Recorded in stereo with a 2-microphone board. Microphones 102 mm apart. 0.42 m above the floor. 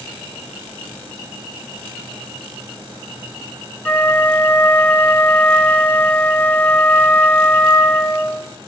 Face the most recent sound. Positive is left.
turn(degrees=15)  # may be behind; listen again after turning